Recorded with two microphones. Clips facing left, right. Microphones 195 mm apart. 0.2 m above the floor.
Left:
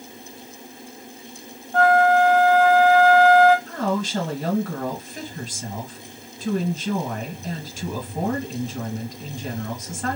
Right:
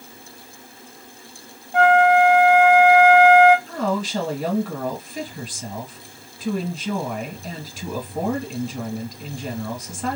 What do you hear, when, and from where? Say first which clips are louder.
1.7 s a flute: right 1 dB; 15° right (ahead or behind), 0.6 m
3.7 s a woman speaking: even; 5° right (ahead or behind), 1.9 m